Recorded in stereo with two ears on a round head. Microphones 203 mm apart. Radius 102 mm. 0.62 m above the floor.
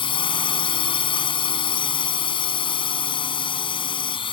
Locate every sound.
0.0 s a drone: 20° left (ahead or behind)